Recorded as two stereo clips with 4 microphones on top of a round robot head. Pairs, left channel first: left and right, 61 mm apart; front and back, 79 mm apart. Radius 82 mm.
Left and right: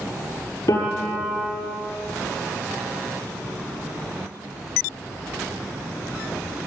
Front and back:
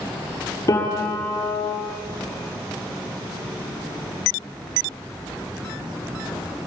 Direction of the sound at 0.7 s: 45° left.